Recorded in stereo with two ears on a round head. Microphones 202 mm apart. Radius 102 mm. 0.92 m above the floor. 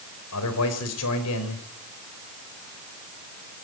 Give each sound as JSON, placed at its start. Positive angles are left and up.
{"t": 0.3, "sound": "a man speaking", "side_deg": 80, "distance_m": 4.5}